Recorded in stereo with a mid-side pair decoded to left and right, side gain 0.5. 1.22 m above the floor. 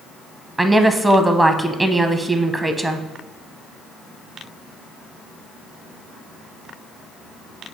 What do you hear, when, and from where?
0.6 s a woman speaking: 20° right, 0.6 m